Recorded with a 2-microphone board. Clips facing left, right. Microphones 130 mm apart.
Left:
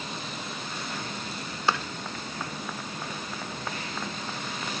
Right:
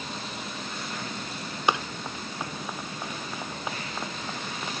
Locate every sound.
1.7 s running footsteps: 15° right (ahead or behind)